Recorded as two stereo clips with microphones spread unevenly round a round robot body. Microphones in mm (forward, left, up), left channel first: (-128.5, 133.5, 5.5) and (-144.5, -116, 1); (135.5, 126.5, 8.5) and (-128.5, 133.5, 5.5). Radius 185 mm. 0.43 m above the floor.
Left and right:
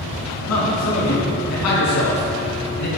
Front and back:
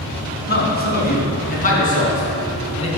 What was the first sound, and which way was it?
A man speaking, 50° left.